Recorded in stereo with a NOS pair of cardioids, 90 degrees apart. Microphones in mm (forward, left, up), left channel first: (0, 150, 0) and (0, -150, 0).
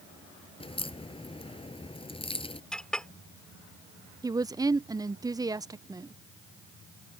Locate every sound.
0.6 s a crack: 20° left
2.7 s a clink: 5° left
4.2 s a woman speaking: 15° right